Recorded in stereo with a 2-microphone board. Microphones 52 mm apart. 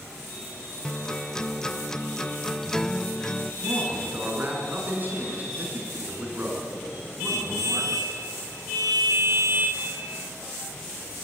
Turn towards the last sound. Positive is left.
turn(degrees=-40)  # may be behind; listen again after turning